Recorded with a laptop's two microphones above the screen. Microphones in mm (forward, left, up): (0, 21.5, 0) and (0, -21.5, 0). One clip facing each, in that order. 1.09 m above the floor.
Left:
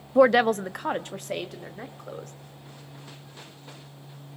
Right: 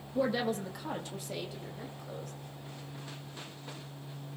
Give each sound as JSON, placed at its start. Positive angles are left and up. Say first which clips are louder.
{"t": 0.1, "sound": "a woman speaking", "louder": "left 13 dB", "side_deg": 75, "distance_m": 0.5}